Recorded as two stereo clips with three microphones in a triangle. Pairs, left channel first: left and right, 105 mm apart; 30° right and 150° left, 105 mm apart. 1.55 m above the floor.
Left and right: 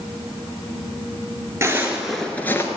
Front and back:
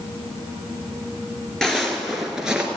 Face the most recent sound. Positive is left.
turn(degrees=80)